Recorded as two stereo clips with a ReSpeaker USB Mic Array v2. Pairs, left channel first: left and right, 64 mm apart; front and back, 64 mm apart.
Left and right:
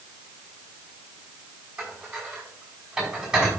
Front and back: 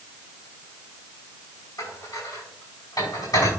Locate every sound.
1.8 s dishes clattering: 10° right, 5 m